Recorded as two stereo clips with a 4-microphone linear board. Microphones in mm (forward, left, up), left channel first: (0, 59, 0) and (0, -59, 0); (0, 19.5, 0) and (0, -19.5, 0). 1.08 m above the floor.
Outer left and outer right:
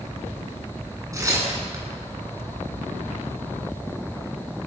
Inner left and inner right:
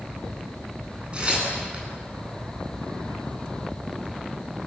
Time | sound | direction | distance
1.1 | tearing paper | 30° right (ahead or behind) | 10 m